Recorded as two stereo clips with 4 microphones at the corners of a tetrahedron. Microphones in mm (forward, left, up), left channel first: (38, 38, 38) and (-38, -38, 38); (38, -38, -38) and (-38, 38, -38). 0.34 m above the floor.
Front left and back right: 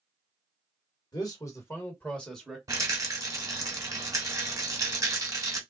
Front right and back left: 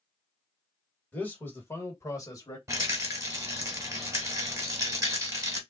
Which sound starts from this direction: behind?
A rattle, at 2.7 s.